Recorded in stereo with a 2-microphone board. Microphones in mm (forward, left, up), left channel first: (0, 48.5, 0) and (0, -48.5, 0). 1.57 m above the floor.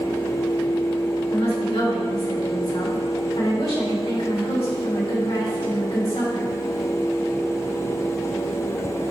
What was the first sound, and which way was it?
A woman speaking, 80° left.